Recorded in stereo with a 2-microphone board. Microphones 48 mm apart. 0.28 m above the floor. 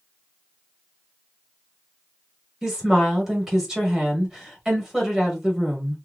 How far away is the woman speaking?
About 1.3 m.